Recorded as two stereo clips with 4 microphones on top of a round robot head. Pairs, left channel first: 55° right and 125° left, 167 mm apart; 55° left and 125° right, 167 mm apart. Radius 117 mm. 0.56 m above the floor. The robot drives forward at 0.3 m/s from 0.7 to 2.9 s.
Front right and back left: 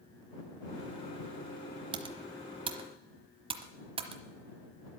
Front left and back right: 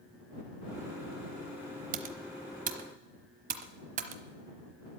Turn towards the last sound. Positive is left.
turn(degrees=-175)